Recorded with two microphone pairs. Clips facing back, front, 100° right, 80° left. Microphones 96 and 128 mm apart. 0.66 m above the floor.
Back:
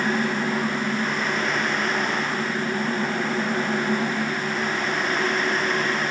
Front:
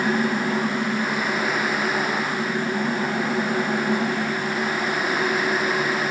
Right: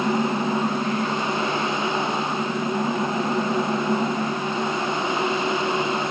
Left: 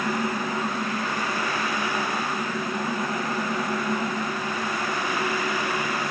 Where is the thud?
I don't hear a thud.